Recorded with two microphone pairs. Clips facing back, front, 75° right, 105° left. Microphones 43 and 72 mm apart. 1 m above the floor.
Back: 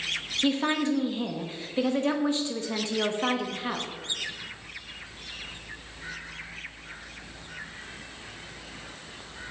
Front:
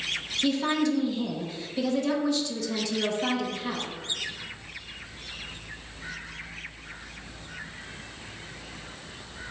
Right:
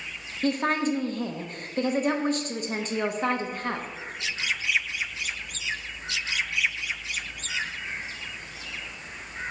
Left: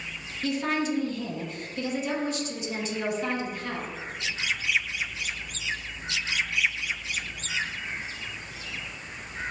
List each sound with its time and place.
0.4 s a woman speaking: 125° right, 0.9 m